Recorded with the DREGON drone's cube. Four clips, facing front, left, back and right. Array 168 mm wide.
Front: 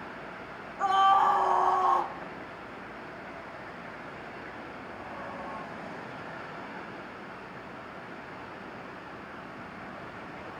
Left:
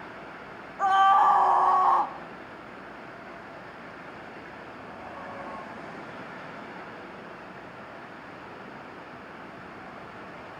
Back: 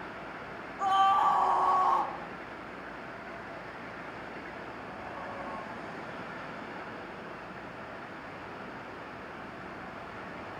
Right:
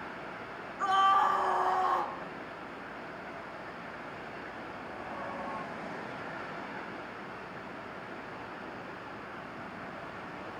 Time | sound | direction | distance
0.8 | a scream | 80° left | 2.5 m